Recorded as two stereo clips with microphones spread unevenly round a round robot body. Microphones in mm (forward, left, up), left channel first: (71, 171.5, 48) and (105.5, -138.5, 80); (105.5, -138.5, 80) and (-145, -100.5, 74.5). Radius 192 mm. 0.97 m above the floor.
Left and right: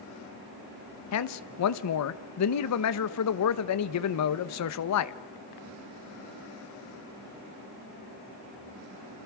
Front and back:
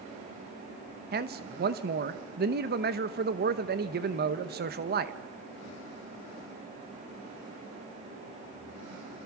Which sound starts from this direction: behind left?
A man speaking, at 1.1 s.